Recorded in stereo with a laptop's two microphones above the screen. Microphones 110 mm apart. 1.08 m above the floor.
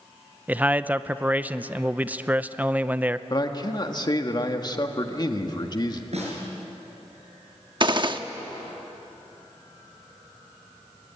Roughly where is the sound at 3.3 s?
Left.